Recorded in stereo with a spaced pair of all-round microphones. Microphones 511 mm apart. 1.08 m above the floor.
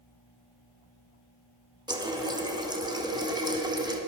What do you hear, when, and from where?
1.9 s a running tap: 10° right (ahead or behind), 0.6 m